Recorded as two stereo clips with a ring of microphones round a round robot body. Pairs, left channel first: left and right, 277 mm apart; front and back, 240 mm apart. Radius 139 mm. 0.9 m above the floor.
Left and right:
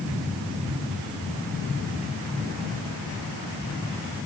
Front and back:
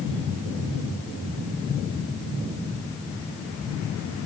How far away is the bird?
No bird in this recording.